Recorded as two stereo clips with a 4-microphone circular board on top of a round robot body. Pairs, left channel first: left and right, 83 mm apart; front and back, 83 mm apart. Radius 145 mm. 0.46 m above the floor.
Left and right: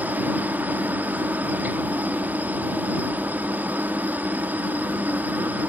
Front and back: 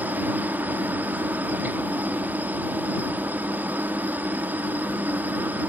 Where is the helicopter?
135° right.